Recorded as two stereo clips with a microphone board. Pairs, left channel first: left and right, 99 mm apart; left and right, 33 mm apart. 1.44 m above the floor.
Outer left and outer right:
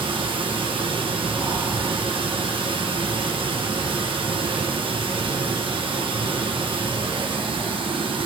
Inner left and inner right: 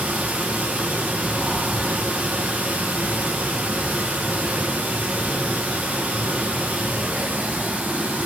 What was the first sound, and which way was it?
Running water, 65° right (ahead or behind).